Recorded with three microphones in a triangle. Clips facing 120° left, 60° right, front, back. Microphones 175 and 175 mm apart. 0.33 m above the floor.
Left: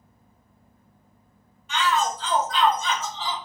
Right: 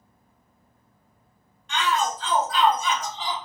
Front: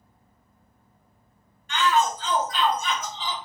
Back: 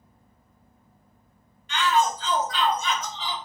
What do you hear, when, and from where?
1.7 s a shout: 35° left, 1.9 m; by 3.4 s straight ahead, 1.3 m